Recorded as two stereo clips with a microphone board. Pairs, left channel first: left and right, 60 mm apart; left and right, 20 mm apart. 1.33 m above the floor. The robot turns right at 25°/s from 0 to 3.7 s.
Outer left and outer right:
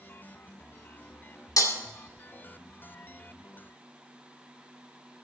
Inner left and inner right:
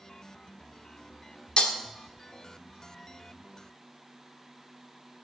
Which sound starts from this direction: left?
Breaking glass, at 1.6 s.